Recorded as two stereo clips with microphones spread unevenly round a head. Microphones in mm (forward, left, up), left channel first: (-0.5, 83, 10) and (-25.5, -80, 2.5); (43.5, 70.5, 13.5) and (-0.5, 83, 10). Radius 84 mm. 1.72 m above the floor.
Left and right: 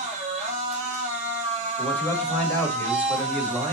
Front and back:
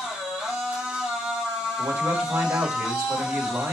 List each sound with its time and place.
0.0 s a machine running: 145° right, 1.4 m
1.8 s a man speaking: 160° left, 1.1 m